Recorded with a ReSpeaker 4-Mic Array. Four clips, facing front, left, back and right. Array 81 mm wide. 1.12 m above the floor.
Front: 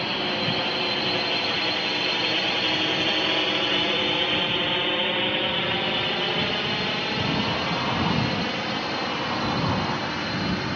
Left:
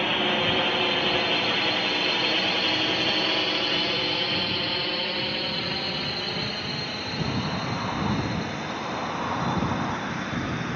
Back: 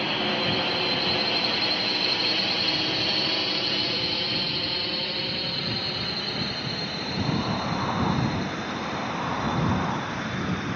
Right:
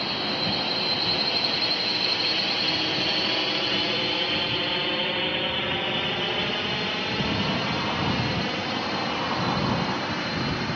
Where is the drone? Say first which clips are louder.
Left 4 dB, even; 95° left; by 10.8 s 40° right.